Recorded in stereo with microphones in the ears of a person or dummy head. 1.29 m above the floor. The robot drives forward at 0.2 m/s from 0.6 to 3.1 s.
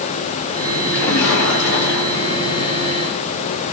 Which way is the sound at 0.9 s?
90° left.